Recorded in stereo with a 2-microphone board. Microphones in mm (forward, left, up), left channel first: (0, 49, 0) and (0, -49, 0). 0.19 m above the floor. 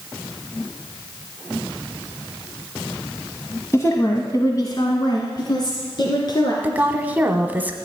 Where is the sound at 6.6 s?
20° right (ahead or behind), 1.1 m.